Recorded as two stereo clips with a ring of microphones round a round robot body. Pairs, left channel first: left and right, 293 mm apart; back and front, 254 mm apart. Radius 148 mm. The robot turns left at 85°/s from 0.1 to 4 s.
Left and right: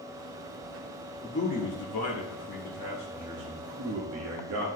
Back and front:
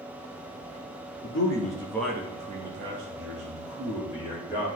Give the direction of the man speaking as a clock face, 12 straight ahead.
7 o'clock.